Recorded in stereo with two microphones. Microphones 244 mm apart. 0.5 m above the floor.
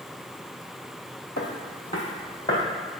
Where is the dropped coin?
I don't hear a dropped coin.